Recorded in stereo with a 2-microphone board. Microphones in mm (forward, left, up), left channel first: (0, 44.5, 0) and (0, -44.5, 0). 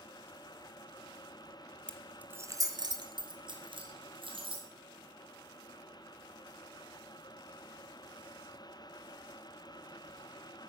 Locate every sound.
1.9 s keys jangling: 15° left (ahead or behind), 0.8 m; by 4.7 s 70° right (ahead or behind), 3.5 m